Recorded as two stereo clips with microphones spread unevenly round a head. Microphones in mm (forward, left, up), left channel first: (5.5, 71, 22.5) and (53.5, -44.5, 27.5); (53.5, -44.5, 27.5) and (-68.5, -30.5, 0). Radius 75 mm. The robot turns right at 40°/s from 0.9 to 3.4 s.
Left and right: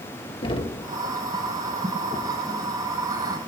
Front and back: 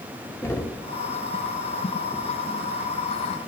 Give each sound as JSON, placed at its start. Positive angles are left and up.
{"t": 0.4, "sound": "knocking", "azimuth_deg": 65, "distance_m": 2.0}